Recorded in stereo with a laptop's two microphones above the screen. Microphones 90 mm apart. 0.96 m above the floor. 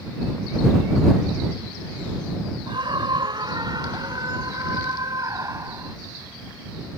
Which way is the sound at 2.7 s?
65° right (ahead or behind).